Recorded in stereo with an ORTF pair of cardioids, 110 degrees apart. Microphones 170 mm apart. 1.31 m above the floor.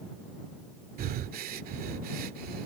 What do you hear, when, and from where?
1.0 s breathing: 65° right